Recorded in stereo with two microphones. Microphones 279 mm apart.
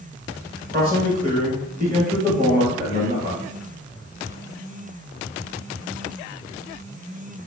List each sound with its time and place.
0.7 s a man speaking: 35° right (ahead or behind), 1.4 m